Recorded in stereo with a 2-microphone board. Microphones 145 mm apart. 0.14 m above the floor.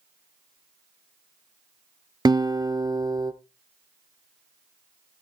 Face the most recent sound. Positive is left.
turn(degrees=-30)  # may be behind; listen again after turning